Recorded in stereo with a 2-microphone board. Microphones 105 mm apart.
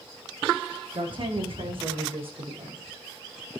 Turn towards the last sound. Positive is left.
turn(degrees=-65)  # may be behind; listen again after turning